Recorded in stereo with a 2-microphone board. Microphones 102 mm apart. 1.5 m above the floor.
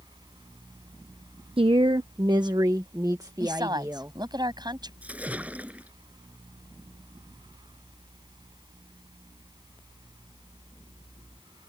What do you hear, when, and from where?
1.6 s a woman speaking: 60° right (ahead or behind); by 4.2 s 30° right (ahead or behind)
3.4 s a woman speaking: 40° right (ahead or behind)
5.0 s a splash: 15° right (ahead or behind)